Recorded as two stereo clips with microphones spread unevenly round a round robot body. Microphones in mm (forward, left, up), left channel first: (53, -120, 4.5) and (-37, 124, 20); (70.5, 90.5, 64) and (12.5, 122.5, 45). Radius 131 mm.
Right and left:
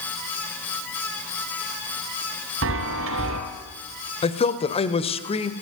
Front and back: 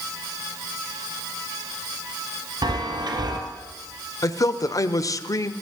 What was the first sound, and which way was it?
A chime, 155° left.